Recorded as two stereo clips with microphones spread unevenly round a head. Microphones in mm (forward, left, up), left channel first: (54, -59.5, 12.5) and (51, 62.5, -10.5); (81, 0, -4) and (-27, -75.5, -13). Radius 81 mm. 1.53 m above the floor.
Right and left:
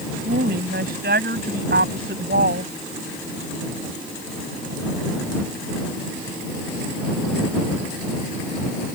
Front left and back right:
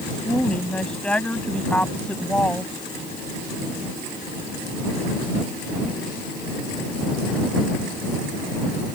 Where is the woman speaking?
120° left.